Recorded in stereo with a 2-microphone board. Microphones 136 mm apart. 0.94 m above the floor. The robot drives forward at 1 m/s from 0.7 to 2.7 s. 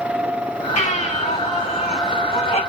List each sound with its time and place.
0.8 s a baby crying: 60° left (ahead or behind), 6.5 m; by 2.6 s 50° left (ahead or behind), 7.5 m